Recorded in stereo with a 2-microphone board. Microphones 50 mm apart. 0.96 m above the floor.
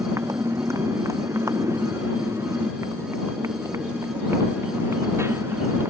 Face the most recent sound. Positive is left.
turn(degrees=-55)  # may be behind; listen again after turning